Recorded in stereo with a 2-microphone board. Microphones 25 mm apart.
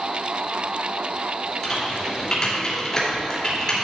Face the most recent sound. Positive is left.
turn(degrees=30)  # may be behind; listen again after turning